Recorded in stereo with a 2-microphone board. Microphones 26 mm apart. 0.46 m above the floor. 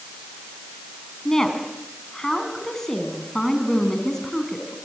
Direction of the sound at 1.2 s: 10° left (ahead or behind).